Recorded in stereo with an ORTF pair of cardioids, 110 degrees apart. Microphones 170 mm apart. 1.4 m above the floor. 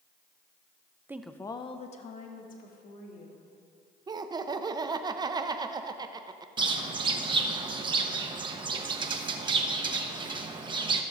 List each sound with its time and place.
1.1 s a woman speaking: 15° right, 0.6 m; by 3.4 s 60° left, 2.5 m
4.1 s laughter: 25° right, 0.7 m
6.6 s a bird: 30° right, 0.8 m